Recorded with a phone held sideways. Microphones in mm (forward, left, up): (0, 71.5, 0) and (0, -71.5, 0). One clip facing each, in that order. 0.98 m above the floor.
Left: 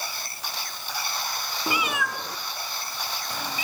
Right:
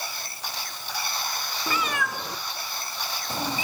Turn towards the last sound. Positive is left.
turn(degrees=-30)  # may be behind; listen again after turning